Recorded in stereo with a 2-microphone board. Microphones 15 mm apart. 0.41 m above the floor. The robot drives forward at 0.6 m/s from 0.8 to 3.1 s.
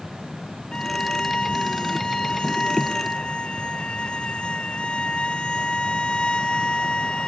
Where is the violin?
75° left (ahead or behind); by 7.3 s 85° left.